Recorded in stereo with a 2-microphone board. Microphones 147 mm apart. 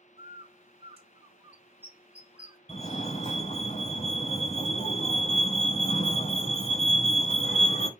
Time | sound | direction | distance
0.2 | a bird | 40° right (ahead or behind) | 1.3 m
2.7 | a fire alarm | 55° left (ahead or behind) | 3.5 m